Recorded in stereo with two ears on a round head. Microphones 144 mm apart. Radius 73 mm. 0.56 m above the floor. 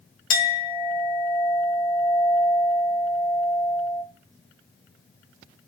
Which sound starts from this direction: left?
A clink, at 0.3 s.